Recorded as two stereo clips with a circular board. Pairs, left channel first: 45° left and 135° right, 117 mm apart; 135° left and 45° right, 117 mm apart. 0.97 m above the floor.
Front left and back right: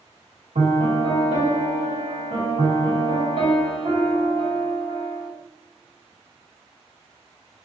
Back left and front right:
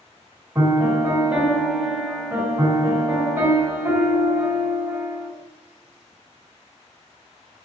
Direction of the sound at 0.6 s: 120° right.